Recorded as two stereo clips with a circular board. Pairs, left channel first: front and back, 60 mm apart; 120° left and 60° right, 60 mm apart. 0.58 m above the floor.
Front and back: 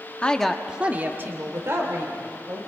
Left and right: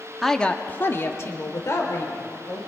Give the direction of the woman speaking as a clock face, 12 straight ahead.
11 o'clock.